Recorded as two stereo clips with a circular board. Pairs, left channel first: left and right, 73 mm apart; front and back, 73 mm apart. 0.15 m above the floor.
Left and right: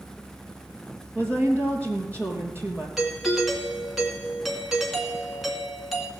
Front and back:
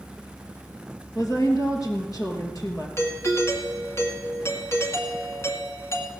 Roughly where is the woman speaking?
Ahead right.